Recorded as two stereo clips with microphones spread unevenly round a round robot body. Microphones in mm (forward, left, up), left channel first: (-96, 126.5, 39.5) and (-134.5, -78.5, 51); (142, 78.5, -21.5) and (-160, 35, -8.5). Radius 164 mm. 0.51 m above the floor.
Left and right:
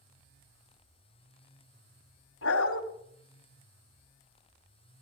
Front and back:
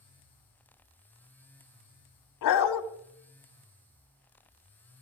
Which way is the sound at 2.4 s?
35° left.